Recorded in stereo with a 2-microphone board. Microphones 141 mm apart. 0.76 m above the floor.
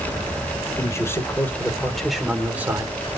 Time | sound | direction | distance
0.8 | a man speaking | 20° left (ahead or behind) | 3.5 m